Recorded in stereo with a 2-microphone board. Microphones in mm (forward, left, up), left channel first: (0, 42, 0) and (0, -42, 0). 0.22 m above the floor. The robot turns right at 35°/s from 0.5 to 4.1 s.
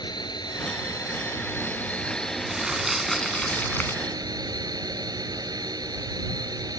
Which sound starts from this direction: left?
A drone, at 0.0 s.